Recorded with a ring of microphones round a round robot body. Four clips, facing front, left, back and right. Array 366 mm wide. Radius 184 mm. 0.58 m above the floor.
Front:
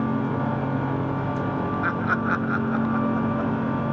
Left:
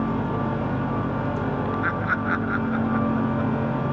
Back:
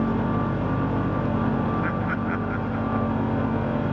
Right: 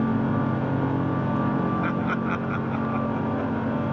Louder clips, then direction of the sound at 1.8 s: Left 1 dB, front 2 dB; 20° right.